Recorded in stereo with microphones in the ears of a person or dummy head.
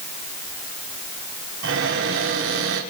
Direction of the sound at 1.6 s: 65° right (ahead or behind).